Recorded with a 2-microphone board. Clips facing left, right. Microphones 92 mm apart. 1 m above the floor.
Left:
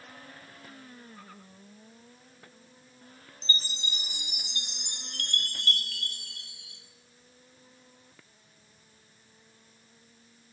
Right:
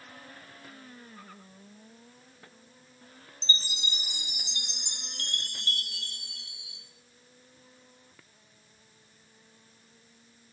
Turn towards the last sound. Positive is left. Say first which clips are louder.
# right 1 dB
turn(degrees=-20)  # may be behind; listen again after turning